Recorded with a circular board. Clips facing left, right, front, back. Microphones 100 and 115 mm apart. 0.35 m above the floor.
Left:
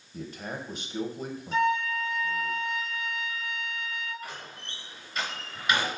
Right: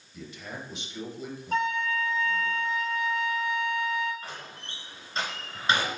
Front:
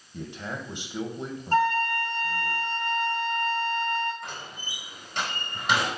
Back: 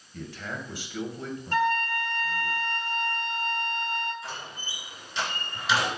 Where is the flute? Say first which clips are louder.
Left 2 dB, front 3 dB; 50° right, 4.5 m.